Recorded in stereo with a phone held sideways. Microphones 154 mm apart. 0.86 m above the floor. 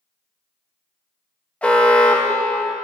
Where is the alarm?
10° left (ahead or behind), 0.8 m.